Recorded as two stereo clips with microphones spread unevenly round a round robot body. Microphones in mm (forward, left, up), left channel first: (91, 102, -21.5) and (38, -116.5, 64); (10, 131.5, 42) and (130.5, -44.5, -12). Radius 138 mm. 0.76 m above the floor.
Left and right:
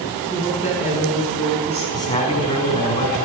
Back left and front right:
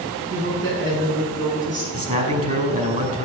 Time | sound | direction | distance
0.3 | a woman speaking | 25° right | 9 m
1.9 | a man speaking | 5° left | 5 m